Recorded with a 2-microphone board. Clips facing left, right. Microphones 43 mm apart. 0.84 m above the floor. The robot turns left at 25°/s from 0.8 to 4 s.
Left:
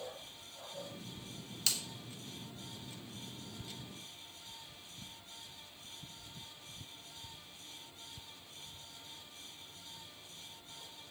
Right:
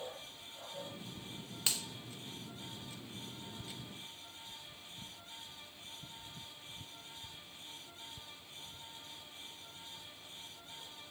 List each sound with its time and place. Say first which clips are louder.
1.7 s a finger snap: even; 25° right (ahead or behind), 1.0 m; by 1.8 s 30° right (ahead or behind), 1.0 m